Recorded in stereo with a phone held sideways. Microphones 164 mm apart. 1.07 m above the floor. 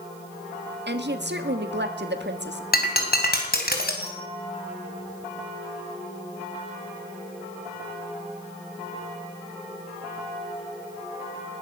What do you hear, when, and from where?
0.9 s a woman speaking: 85° right, 1.7 m
2.7 s breaking glass: 60° left (ahead or behind), 3 m